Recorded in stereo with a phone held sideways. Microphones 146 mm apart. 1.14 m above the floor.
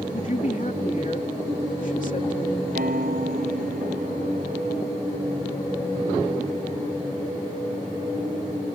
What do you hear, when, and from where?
0.1 s a man speaking: 60° left (ahead or behind)
2.8 s a piano: 70° right (ahead or behind)